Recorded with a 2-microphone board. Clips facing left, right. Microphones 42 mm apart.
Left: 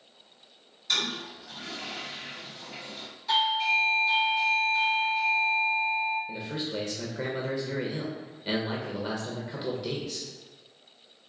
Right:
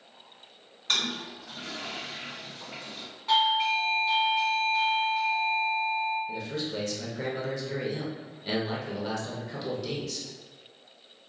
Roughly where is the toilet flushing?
Right.